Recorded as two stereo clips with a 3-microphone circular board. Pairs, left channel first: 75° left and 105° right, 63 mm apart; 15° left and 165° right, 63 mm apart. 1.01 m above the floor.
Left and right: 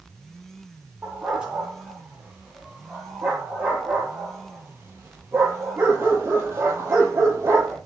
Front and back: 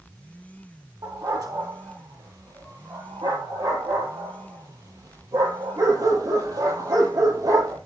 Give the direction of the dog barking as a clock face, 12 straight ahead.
6 o'clock.